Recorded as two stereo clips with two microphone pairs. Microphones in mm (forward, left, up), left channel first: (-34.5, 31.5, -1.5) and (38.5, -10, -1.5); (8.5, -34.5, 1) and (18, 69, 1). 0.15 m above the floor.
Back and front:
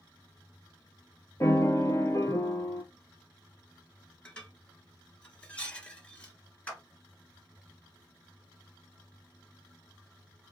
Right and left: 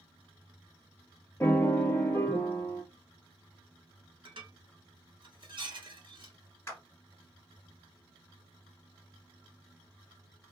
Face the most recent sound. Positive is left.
turn(degrees=-145)